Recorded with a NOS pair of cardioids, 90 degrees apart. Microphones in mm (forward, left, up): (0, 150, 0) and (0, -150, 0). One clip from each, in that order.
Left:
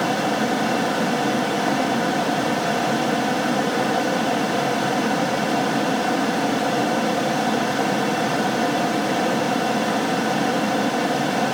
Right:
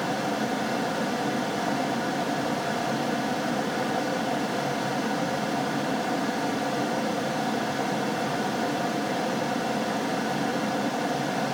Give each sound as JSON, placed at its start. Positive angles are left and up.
{"t": 0.0, "sound": "a fan", "azimuth_deg": 30, "distance_m": 0.9}